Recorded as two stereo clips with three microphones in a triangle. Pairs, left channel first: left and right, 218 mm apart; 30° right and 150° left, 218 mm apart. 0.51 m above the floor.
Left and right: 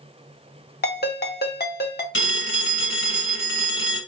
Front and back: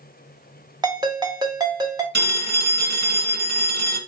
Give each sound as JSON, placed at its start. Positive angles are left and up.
{"t": 0.8, "sound": "a ringtone", "azimuth_deg": 85, "distance_m": 1.0}
{"t": 2.1, "sound": "a phone ringing", "azimuth_deg": 115, "distance_m": 1.3}